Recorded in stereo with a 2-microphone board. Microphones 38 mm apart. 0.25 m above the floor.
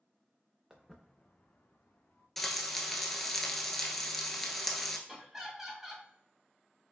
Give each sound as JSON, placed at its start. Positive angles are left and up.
{"t": 0.7, "sound": "footsteps", "side_deg": -15, "distance_m": 0.9}
{"t": 2.4, "sound": "frying", "side_deg": 5, "distance_m": 0.8}
{"t": 5.1, "sound": "laughter", "side_deg": -10, "distance_m": 1.5}